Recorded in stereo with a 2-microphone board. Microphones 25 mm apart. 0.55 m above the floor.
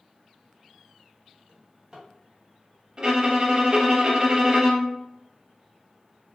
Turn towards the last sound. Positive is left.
turn(degrees=-35)  # may be behind; listen again after turning